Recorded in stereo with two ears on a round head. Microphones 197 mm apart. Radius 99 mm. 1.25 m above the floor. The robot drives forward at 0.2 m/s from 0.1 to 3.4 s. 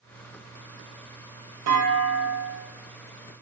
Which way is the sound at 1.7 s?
80° right.